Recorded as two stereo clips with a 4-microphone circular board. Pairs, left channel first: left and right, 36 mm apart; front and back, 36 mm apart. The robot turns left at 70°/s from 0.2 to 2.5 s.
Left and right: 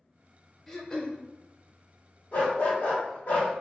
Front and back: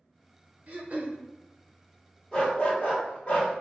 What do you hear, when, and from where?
0.7 s throat clearing: 165° left, 0.7 m; by 1.2 s 130° left, 0.7 m
2.3 s a dog barking: 65° left, 1.5 m; by 3.5 s 50° left, 1.5 m